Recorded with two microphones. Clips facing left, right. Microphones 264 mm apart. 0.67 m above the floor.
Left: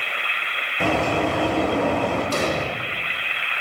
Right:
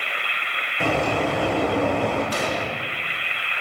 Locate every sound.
0.8 s a bird: 5° left (ahead or behind), 7 m
2.3 s an explosion: 45° left (ahead or behind), 1.5 m